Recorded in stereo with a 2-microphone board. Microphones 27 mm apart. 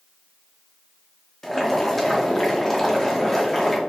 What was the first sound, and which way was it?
Boiling, 15° left (ahead or behind).